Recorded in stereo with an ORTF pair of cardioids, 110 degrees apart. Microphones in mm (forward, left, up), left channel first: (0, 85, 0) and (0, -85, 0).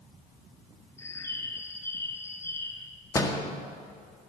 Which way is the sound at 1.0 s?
15° left.